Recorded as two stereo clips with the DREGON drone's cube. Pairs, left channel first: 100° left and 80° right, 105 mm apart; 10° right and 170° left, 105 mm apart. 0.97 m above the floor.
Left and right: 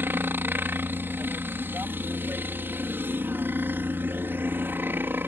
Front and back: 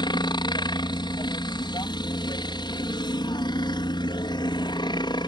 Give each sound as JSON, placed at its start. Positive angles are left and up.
{"t": 0.0, "sound": "a helicopter", "azimuth_deg": -15}